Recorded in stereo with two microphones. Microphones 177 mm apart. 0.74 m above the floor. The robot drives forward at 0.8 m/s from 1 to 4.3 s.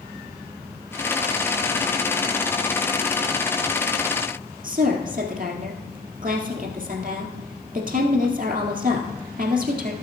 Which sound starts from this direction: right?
A woman speaking, at 4.6 s.